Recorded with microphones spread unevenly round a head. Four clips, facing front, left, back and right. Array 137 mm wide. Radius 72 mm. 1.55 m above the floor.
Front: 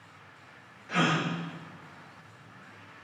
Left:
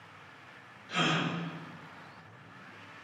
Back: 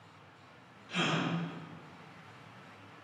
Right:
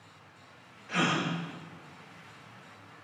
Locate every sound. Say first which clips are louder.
0.9 s a gasp: right 2 dB, front 6 dB; 20° right, 1.0 m